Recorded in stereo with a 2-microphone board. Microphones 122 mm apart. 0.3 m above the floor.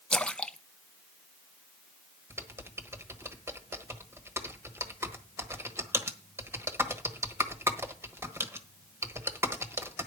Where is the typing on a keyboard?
20° right (ahead or behind), 1.2 m.